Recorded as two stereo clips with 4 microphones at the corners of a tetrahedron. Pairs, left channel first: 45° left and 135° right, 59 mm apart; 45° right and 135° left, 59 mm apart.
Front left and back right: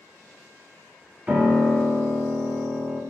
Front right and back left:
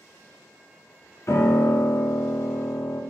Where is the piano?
70° right, 0.6 m.